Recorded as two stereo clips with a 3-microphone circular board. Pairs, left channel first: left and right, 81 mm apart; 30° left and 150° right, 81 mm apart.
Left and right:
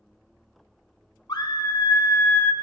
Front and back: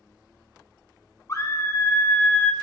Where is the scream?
75° left, 1.2 m.